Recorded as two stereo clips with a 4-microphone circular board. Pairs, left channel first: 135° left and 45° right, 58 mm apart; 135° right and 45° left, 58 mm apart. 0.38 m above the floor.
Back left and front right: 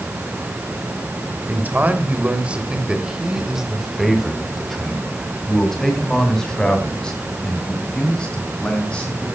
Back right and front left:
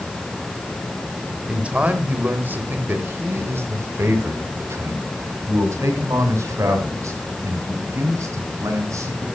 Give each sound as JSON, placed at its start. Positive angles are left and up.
{"t": 1.5, "sound": "a man speaking", "azimuth_deg": -10, "distance_m": 1.8}